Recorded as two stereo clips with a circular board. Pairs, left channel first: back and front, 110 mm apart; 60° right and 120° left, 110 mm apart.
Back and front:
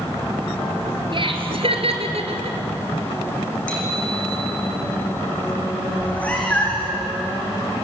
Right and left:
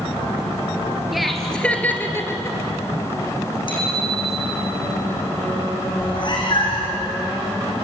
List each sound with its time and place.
1.1 s laughter: 35° left, 2.5 m; by 2.6 s straight ahead, 3 m
3.7 s a bicycle bell: 100° right, 6.5 m
6.0 s a cat meowing: 105° right, 4.5 m